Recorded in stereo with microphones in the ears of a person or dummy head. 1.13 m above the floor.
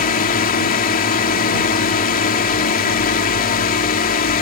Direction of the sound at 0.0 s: 40° left (ahead or behind).